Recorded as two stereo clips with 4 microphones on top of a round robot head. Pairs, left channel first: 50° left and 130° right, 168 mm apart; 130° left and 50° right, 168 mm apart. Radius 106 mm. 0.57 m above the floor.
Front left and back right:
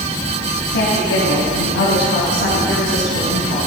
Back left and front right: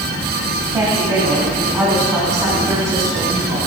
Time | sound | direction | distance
0.7 | a woman speaking | 30° left | 4 m